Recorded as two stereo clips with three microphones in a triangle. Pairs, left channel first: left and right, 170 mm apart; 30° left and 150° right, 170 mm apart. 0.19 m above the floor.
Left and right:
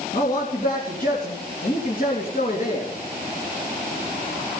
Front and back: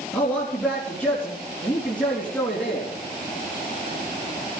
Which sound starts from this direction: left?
A man speaking, at 0.1 s.